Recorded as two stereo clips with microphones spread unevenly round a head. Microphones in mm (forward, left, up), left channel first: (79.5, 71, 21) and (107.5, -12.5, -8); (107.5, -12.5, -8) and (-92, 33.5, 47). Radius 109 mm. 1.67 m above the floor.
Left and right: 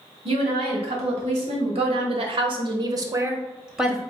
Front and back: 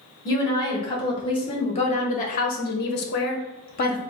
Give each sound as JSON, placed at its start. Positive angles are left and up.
{"t": 0.2, "sound": "a woman speaking", "azimuth_deg": -90, "distance_m": 1.8}